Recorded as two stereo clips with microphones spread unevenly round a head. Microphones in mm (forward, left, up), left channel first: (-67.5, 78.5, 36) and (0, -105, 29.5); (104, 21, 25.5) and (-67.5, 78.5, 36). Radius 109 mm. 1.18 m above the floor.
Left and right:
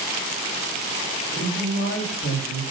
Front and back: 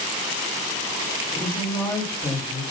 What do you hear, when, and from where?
1.3 s a woman speaking: 55° left, 7 m